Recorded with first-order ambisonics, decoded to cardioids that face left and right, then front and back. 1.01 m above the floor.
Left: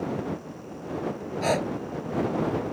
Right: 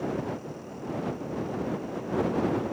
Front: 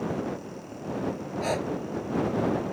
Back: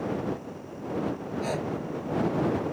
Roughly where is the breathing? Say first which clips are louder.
Left 11 dB, front 3 dB; left.